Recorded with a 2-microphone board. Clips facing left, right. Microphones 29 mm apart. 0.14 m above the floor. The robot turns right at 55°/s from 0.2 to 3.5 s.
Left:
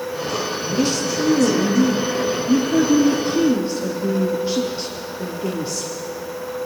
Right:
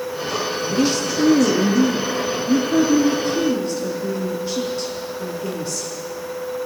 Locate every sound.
0.7 s a woman speaking: 130° right, 3.5 m; by 5.9 s 25° left, 3.5 m